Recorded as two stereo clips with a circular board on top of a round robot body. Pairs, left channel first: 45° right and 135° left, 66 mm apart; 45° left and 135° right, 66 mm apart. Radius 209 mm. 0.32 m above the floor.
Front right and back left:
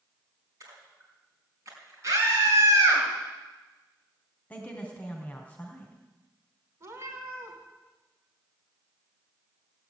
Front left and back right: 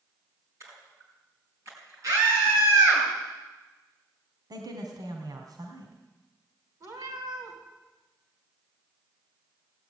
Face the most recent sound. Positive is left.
turn(degrees=-175)